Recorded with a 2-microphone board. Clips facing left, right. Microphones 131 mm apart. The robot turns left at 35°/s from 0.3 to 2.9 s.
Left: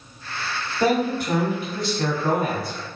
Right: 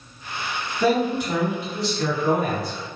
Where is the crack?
I don't hear a crack.